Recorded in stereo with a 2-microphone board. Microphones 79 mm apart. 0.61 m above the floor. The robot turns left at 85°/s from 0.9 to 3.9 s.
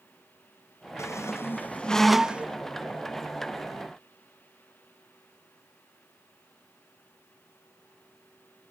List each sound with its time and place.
1.0 s a squeak: 35° left (ahead or behind), 0.5 m; by 2.5 s 20° right (ahead or behind), 0.5 m